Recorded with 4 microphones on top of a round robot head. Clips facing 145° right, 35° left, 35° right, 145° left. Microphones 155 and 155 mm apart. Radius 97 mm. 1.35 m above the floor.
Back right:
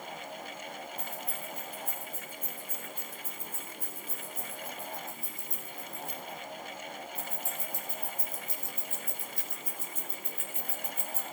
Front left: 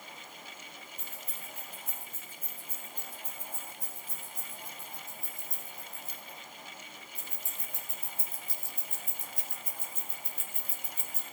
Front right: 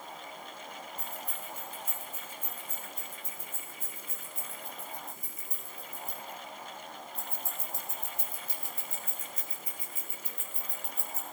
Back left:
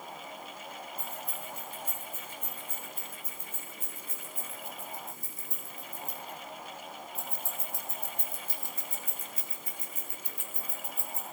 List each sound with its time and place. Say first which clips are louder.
1.0 s keys jangling: back right 8 dB, back left 1 dB; 140° left, 8 m; by 11.2 s 50° left, 3 m